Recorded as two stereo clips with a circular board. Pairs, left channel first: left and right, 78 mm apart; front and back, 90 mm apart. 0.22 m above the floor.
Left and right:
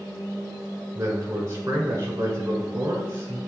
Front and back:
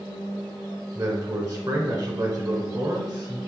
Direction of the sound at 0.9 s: 140° right.